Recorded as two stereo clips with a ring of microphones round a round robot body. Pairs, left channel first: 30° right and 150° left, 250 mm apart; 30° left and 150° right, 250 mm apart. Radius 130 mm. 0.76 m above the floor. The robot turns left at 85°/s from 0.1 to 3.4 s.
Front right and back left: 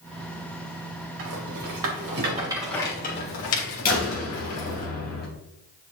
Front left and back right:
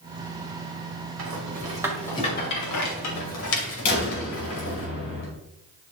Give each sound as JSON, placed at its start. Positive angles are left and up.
{"t": 1.2, "sound": "a rattle", "azimuth_deg": -175, "distance_m": 3.0}
{"t": 3.9, "sound": "a door slam", "azimuth_deg": 25, "distance_m": 3.0}